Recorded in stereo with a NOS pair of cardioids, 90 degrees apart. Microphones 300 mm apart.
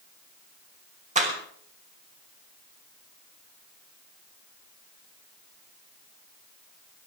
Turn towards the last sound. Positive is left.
turn(degrees=-25)